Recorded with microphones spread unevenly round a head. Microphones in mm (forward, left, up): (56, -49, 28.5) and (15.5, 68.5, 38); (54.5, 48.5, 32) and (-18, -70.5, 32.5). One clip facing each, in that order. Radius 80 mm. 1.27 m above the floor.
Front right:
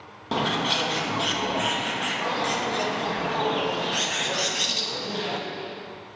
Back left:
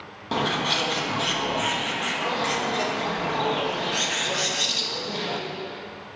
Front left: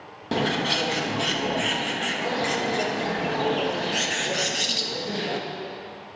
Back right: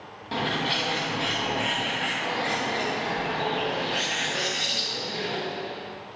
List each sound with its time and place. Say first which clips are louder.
0.3 s a bird: even, front left 4 dB; 20° left, 1.2 m